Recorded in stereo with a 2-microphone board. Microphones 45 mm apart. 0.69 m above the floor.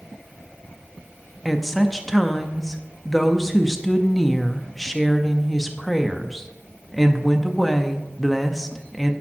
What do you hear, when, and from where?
1.4 s a woman speaking: 5° left (ahead or behind), 0.6 m